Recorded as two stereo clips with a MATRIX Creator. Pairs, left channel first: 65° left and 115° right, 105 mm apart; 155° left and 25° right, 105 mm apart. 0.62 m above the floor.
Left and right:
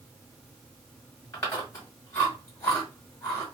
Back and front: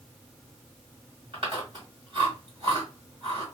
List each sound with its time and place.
1.3 s chewing: straight ahead, 2 m